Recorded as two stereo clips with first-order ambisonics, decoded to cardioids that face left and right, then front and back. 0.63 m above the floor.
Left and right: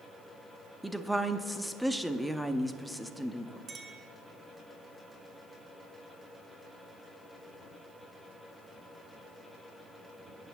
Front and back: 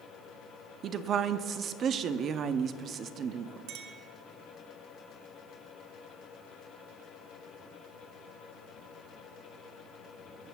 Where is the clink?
155° right, 1.5 m.